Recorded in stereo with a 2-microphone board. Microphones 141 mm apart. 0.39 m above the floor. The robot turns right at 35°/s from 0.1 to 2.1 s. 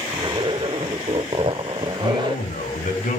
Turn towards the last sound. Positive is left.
turn(degrees=75)  # may be behind; listen again after turning